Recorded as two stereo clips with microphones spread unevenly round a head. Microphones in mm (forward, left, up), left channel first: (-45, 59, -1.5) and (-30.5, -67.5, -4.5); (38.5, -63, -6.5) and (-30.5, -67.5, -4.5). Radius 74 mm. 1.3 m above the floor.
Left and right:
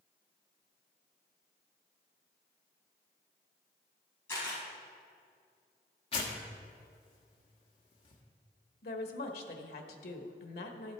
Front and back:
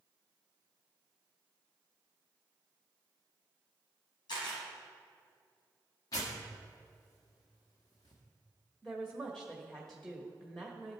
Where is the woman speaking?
90° left, 1.3 m.